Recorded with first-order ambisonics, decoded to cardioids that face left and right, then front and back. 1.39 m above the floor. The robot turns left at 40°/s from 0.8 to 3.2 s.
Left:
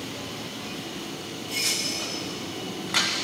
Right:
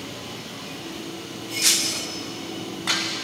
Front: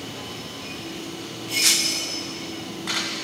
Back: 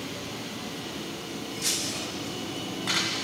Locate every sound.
1.6 s breaking glass: 45° right, 1.0 m; by 2.1 s 65° right, 1.0 m